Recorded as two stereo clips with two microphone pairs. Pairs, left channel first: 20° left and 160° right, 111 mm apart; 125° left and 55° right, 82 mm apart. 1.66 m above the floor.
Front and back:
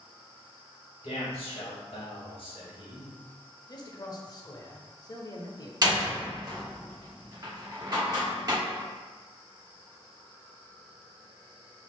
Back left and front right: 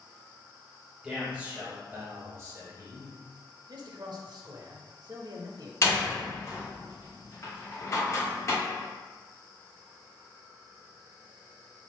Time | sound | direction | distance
1.0 | a man speaking | 25° left | 1.9 m
3.7 | a man speaking | 25° right | 0.8 m
5.8 | a door slam | 160° left | 1.4 m